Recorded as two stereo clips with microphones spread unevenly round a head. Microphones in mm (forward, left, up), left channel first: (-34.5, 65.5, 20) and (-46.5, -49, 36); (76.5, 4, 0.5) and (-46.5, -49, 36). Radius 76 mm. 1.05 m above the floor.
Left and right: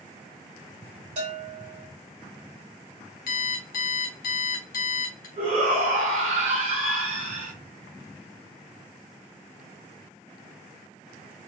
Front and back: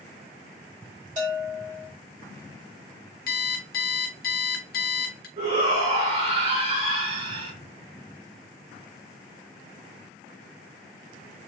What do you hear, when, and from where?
1.2 s a bell: 120° right, 3 m
3.3 s an alarm clock: 55° left, 1.2 m
5.4 s a shout: 110° right, 3 m